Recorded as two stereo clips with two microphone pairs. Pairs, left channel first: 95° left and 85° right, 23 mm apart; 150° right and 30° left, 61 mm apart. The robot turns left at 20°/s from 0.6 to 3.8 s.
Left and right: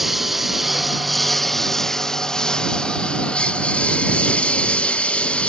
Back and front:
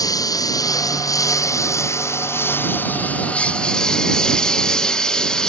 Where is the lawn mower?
165° right; by 5.5 s 130° left.